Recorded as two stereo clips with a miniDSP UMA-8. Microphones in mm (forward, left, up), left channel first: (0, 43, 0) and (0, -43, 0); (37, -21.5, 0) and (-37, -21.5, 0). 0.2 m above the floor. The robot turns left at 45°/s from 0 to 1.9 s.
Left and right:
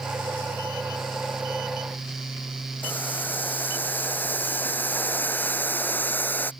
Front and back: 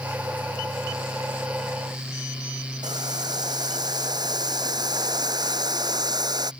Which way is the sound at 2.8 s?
160° left.